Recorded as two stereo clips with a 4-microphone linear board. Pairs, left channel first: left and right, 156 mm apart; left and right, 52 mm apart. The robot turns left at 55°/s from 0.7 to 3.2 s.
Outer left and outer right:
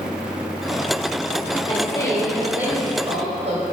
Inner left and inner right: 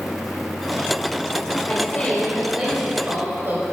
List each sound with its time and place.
1.6 s a woman speaking: 40° left, 3 m; by 3.6 s 45° right, 3 m